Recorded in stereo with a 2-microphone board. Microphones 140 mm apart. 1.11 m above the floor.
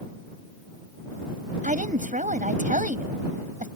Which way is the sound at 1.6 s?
70° right (ahead or behind).